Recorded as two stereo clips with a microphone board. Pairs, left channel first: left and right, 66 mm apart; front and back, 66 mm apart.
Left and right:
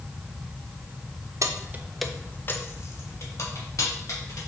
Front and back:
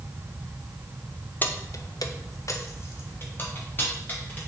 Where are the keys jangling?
60° right, 0.7 m; by 4.4 s 60° left, 3 m.